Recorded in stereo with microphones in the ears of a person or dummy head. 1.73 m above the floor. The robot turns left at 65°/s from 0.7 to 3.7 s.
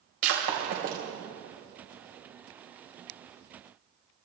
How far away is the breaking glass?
About 3 m.